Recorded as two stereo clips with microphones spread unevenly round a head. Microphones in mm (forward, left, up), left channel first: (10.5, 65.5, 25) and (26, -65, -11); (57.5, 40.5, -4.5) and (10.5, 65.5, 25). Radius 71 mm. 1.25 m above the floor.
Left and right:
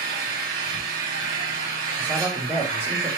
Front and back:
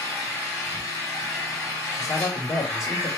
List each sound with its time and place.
0.0 s an engine running: 75° right, 3 m
1.9 s a man speaking: straight ahead, 1.0 m